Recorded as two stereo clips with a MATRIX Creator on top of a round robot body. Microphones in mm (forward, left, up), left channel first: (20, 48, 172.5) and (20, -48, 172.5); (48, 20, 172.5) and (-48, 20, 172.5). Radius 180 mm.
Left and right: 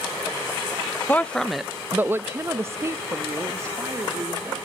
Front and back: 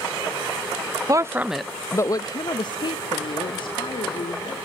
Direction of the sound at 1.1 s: 155° left.